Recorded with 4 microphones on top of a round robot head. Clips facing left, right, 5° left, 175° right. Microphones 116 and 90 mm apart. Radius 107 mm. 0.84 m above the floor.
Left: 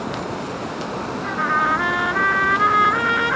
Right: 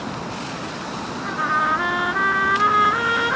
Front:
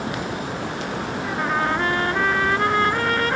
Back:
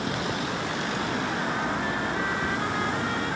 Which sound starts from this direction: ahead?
A trumpet, at 1.2 s.